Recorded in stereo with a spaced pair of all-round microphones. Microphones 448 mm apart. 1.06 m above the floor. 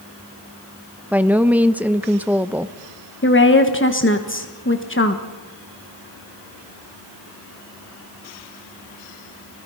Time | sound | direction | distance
1.1 | a woman speaking | 5° right (ahead or behind) | 0.7 m
3.2 | a woman speaking | 25° left (ahead or behind) | 1.2 m